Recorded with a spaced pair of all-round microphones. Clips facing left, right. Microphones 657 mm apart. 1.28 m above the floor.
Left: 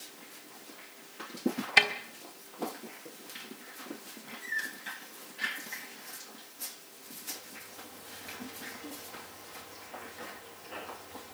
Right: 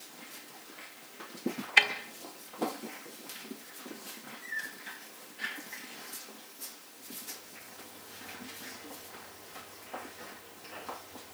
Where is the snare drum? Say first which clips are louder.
Left 4 dB; 65° left (ahead or behind), 1.6 m.